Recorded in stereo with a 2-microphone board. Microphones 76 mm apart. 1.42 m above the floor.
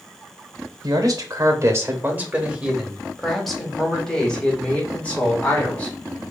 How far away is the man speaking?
About 1.1 m.